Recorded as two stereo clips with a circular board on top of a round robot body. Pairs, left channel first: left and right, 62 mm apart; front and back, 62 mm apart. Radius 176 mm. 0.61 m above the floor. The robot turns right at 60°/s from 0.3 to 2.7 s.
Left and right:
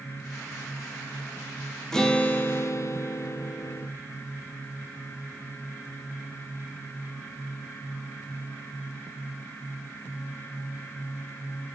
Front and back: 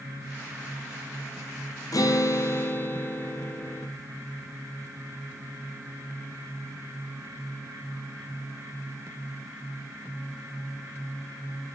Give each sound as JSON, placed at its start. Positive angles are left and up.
{"t": 1.9, "sound": "a guitar", "azimuth_deg": 5, "distance_m": 2.5}